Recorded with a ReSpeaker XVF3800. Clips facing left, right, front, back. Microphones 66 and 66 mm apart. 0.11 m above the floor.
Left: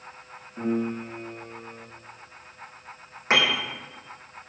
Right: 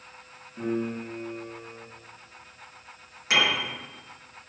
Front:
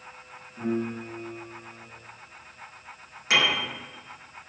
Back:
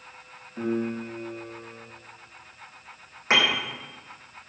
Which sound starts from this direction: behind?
A piano, at 0.6 s.